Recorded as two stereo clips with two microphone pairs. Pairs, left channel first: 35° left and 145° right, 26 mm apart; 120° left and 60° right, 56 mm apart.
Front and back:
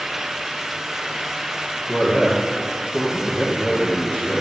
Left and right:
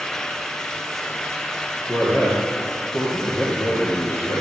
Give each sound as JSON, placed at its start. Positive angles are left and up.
{"t": 1.9, "sound": "a man speaking", "azimuth_deg": 95, "distance_m": 2.0}